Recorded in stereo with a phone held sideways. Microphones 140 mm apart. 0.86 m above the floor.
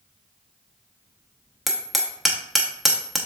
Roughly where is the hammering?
Centre.